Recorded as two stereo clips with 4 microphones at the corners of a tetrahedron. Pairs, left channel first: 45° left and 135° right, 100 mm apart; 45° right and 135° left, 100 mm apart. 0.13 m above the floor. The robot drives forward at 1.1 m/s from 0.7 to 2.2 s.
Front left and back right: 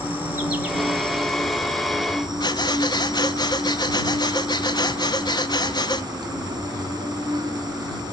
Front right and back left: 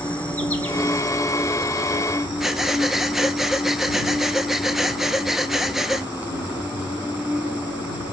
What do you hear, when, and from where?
0.0 s an insect: 95° right, 1.9 m; by 8.1 s 160° right, 2.5 m
2.4 s breathing: 50° left, 0.7 m